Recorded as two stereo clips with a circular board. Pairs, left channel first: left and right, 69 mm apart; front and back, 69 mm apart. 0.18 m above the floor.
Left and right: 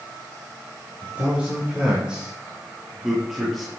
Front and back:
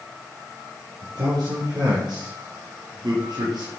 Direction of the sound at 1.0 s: 160° right.